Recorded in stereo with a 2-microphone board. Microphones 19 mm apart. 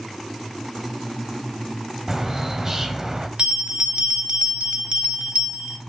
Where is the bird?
25° right (ahead or behind), 1.2 m.